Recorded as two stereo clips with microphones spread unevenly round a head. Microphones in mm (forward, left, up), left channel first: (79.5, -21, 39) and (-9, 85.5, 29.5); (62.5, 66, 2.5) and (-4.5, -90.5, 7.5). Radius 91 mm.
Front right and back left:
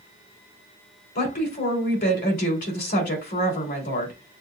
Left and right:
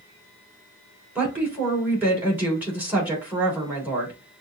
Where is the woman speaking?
35° right, 3 m.